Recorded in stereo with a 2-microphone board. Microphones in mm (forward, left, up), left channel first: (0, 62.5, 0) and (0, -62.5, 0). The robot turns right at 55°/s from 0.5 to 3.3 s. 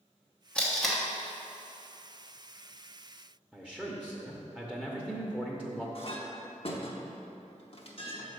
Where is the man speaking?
5° right (ahead or behind), 0.8 m.